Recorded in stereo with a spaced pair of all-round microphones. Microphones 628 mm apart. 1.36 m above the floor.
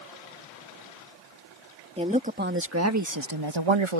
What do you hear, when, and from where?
2.0 s a woman speaking: 10° right (ahead or behind); by 4.0 s 55° right (ahead or behind)